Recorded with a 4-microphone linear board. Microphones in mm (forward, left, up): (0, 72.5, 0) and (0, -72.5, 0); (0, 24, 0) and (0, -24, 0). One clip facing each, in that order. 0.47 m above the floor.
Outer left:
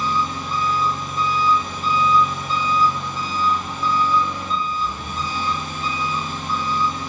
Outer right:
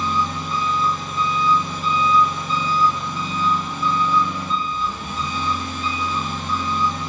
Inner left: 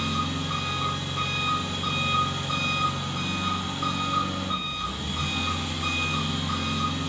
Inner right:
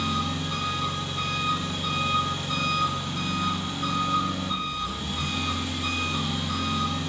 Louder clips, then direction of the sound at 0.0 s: Even, even; 45° left (ahead or behind).